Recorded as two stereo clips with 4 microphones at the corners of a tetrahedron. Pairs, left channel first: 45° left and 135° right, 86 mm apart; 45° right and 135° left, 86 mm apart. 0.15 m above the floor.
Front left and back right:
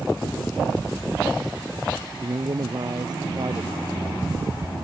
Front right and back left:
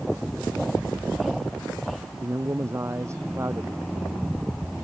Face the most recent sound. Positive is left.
turn(degrees=-170)